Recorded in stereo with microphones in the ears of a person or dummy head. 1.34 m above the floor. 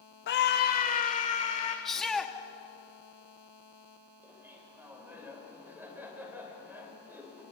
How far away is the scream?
About 0.9 m.